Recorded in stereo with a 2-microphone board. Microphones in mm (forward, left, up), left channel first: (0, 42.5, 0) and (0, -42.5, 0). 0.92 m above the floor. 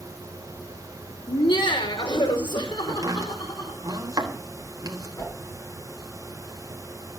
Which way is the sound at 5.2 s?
50° left (ahead or behind).